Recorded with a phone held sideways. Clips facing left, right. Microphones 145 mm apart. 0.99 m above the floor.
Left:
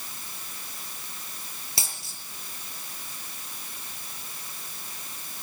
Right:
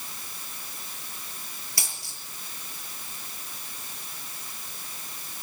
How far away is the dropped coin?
About 7.5 m.